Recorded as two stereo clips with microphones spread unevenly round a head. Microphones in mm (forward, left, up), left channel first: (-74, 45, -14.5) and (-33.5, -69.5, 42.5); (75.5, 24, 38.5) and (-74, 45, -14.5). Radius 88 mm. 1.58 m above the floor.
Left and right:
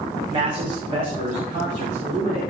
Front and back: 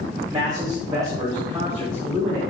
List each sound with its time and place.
0.3 s a man speaking: 110° right, 2.5 m